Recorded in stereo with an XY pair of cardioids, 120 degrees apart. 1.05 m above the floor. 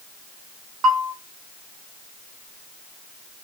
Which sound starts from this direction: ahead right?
A bell, at 0.8 s.